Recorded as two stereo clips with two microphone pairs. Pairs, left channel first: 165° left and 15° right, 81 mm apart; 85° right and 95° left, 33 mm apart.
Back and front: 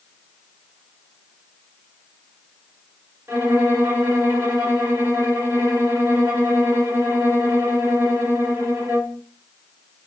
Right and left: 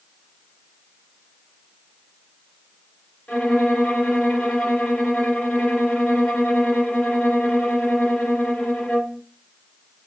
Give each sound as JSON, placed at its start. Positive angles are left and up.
{"t": 3.3, "sound": "a violin", "azimuth_deg": -60, "distance_m": 1.5}